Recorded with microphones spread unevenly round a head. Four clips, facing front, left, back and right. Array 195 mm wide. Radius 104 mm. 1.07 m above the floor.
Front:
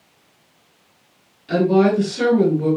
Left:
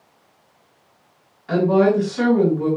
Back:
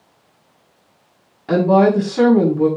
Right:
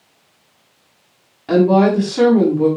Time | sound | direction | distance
1.5 | a woman speaking | 135° right | 6.5 m